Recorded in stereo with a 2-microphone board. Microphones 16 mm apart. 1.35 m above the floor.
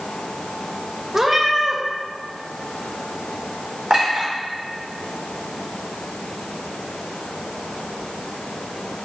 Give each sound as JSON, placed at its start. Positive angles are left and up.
{"t": 1.1, "sound": "a cat meowing", "side_deg": -30, "distance_m": 0.6}
{"t": 3.9, "sound": "a clink", "side_deg": -75, "distance_m": 1.8}